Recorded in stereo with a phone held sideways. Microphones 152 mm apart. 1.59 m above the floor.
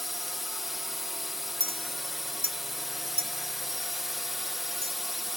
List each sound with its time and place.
0.0 s a drone: centre (ahead or behind)
1.6 s a clink: 70° right (ahead or behind)